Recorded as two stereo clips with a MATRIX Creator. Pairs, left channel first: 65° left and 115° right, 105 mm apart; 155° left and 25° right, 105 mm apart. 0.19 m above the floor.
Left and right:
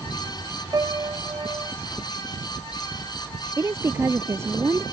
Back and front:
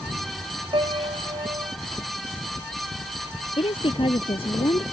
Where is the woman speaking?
175° right.